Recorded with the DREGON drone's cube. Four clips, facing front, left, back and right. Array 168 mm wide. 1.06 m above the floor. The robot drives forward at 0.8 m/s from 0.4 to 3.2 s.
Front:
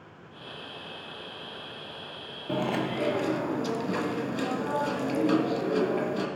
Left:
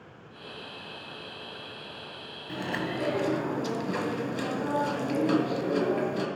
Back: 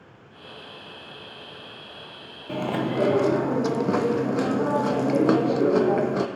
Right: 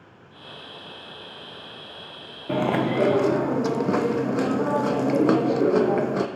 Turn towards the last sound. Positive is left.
turn(degrees=-130)